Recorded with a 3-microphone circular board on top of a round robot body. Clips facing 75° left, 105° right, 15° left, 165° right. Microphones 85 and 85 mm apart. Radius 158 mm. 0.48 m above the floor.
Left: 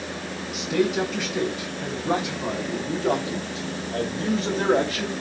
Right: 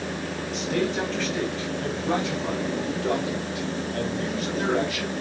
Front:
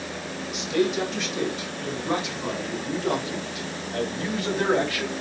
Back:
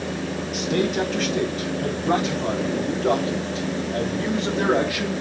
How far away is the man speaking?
About 4 m.